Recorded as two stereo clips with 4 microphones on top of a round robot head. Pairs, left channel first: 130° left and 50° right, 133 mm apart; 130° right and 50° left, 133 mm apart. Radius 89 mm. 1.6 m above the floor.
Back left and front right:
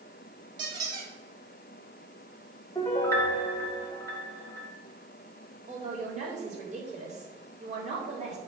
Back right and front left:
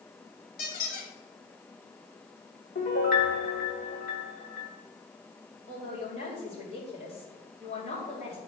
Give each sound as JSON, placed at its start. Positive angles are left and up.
{"t": 0.6, "sound": "a squeak", "azimuth_deg": -110, "distance_m": 2.0}
{"t": 2.8, "sound": "a piano", "azimuth_deg": -155, "distance_m": 1.7}
{"t": 5.7, "sound": "a man speaking", "azimuth_deg": -85, "distance_m": 4.0}